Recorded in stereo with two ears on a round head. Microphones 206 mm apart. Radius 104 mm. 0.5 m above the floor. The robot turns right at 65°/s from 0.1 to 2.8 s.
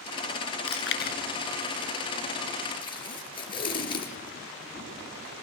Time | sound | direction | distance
0.7 | chewing | 75° left (ahead or behind) | 2 m
2.8 | tape being pulled | 25° left (ahead or behind) | 5.5 m